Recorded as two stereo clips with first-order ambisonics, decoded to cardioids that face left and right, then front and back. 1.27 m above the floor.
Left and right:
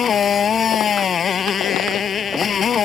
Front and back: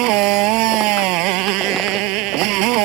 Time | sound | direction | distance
0.0 | a motorcycle | 155° left | ?